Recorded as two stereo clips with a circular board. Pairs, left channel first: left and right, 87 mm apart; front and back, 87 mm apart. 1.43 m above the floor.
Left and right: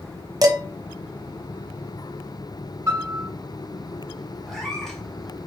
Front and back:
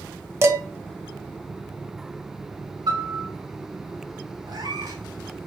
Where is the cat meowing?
Straight behind, 1.4 m.